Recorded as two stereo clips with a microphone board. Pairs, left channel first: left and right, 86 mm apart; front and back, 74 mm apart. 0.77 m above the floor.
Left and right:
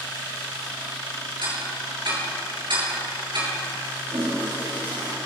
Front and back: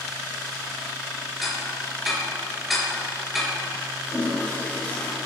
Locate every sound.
1.4 s ticking: 90° right, 5.5 m
4.1 s a toilet flushing: 65° right, 4.5 m